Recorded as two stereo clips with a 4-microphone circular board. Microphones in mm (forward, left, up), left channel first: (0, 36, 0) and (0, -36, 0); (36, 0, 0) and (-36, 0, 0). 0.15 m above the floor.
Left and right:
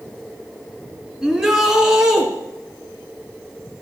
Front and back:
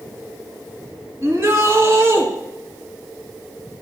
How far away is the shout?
About 1.9 m.